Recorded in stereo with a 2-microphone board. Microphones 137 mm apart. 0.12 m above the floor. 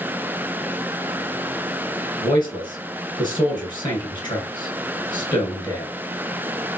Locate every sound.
2.2 s a man speaking: 30° left (ahead or behind), 1.9 m